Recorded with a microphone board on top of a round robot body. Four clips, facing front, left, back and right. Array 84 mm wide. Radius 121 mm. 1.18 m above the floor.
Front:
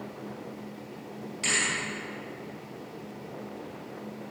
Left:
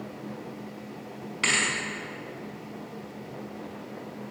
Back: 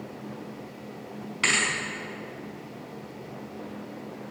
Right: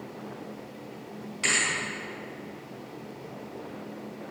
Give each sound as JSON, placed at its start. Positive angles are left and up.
{"t": 1.4, "sound": "a thud", "azimuth_deg": 150, "distance_m": 5.0}